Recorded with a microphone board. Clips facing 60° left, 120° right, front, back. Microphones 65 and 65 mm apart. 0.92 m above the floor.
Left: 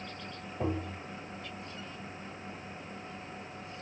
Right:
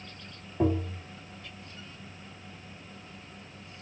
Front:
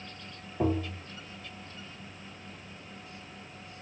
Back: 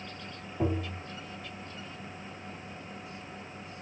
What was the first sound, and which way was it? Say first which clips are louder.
Tapping: right 7 dB, front 2 dB; 80° right.